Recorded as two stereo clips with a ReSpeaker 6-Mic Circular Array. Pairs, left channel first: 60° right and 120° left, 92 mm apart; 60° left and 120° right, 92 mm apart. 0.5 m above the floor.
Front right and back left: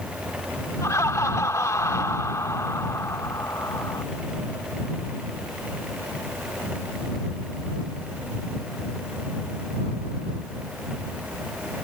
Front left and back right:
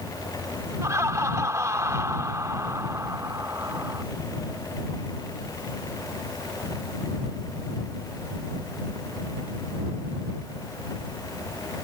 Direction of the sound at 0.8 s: 90° right.